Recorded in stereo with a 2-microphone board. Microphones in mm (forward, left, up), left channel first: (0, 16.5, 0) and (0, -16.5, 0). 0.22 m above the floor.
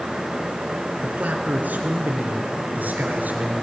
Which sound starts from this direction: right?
A man speaking, at 1.0 s.